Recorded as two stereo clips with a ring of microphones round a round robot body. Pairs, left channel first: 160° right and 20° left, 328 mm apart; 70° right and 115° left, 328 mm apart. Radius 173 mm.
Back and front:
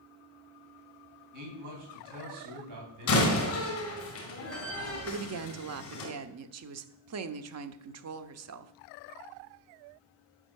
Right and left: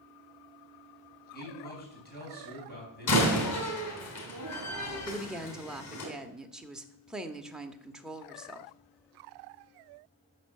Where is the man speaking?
5° right, 4.5 m.